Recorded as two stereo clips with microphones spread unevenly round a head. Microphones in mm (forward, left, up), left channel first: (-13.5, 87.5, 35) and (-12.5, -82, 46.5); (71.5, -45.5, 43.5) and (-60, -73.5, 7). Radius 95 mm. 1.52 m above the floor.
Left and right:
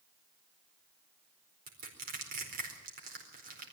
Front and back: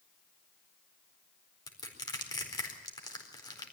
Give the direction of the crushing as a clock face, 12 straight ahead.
2 o'clock.